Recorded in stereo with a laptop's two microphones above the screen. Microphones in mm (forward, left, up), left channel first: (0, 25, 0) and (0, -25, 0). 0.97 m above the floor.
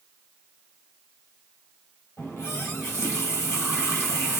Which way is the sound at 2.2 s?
65° left (ahead or behind).